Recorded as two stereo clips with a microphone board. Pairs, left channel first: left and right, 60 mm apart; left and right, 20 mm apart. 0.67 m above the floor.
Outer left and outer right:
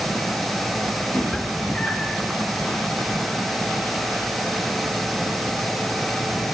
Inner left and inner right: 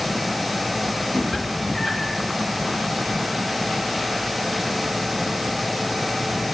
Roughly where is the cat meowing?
Left.